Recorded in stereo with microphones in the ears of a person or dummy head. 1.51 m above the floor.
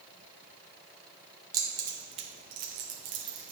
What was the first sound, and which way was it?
Keys jangling, 20° right (ahead or behind).